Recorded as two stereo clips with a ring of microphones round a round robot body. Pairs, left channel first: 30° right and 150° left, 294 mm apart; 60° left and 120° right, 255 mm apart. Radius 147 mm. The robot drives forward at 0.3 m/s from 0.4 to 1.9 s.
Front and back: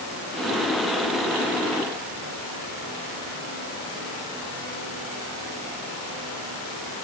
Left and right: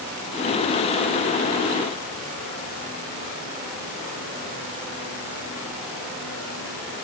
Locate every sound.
Only background noise.